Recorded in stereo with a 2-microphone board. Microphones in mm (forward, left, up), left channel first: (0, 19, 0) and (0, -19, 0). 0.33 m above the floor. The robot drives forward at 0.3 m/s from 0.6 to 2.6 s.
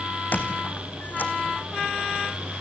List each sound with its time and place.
0.3 s a squeak: 45° left (ahead or behind), 2.0 m; by 1.3 s 50° left (ahead or behind), 1.8 m